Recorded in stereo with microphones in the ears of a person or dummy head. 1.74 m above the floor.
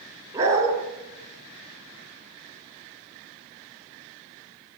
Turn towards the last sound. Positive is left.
turn(degrees=-15)  # may be behind; listen again after turning